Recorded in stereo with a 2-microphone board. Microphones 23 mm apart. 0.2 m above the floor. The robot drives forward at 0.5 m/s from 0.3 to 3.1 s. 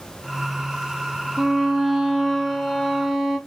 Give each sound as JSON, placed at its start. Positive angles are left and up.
{"t": 1.4, "sound": "a violin", "side_deg": -25, "distance_m": 0.8}